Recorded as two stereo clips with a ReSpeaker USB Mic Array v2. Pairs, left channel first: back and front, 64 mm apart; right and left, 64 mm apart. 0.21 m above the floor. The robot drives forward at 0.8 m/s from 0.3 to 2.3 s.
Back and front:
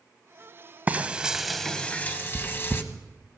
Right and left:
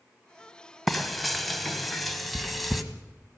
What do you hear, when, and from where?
0.9 s frying: 5° right, 1.1 m; by 2.8 s straight behind, 1.2 m